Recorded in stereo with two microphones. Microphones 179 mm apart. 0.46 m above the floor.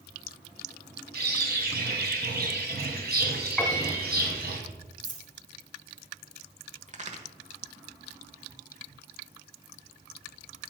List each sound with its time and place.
1.1 s a bird: 65° right (ahead or behind), 2 m
3.6 s a piano: centre (ahead or behind), 1.7 m
5.0 s a dropped coin: 85° right, 1.4 m
6.9 s a crack: 40° right (ahead or behind), 1.3 m